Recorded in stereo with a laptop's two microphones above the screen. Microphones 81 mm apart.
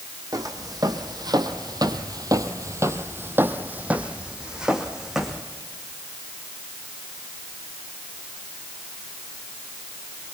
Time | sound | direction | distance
0.3 | footsteps | 50° right (ahead or behind) | 2.5 m